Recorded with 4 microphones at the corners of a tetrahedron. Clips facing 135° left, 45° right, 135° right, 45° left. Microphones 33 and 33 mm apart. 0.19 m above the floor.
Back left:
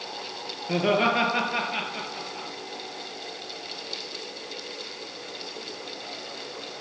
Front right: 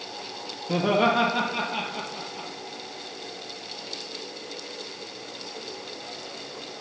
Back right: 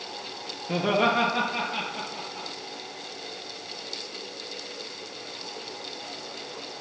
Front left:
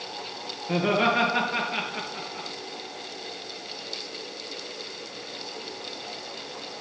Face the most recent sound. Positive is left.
turn(degrees=80)